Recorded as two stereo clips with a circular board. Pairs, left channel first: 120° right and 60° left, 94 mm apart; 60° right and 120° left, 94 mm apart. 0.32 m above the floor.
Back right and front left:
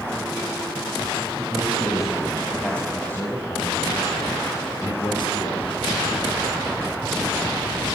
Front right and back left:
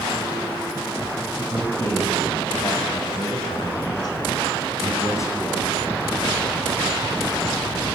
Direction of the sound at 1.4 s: 15° right.